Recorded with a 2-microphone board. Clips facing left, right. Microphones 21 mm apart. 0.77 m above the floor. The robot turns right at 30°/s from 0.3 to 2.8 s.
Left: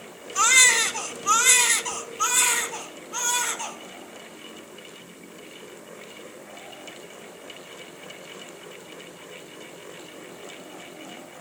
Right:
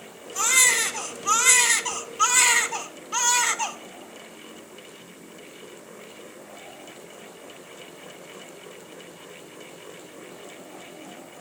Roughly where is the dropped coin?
I don't hear a dropped coin.